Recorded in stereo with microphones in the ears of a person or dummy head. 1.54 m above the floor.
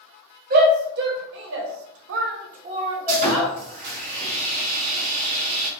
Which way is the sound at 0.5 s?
60° right (ahead or behind).